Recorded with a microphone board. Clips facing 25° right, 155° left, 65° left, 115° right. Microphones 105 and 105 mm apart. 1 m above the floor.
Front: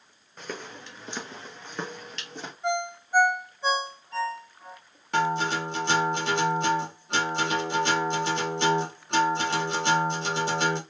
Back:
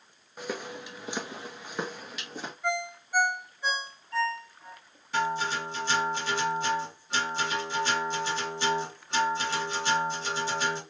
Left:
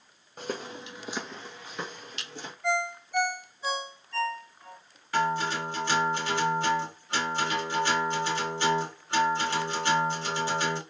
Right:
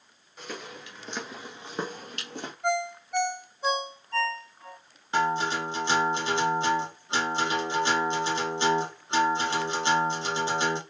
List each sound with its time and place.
0.4 s footsteps: 80° left, 1.3 m; by 2.5 s 120° right, 1.7 m
2.6 s a ringtone: 85° right, 1.9 m
5.1 s a guitar: 45° right, 1.3 m